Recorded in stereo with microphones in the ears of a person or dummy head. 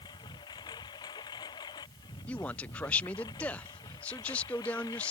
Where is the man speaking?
5° left (ahead or behind).